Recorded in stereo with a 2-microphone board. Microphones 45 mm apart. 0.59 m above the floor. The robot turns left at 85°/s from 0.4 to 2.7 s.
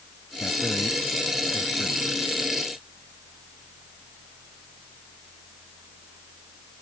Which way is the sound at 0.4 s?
70° left (ahead or behind).